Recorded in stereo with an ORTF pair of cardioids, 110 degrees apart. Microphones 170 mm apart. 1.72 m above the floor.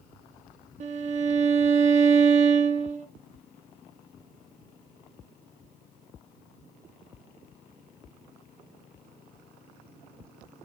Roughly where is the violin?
Ahead right.